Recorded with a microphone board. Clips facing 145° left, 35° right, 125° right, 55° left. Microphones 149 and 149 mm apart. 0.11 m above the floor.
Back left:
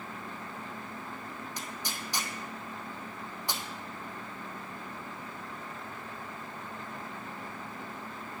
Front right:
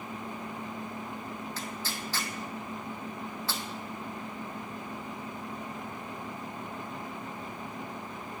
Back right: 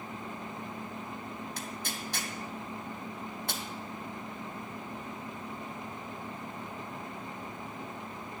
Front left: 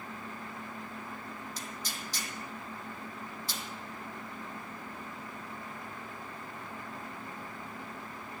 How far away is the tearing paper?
About 0.9 m.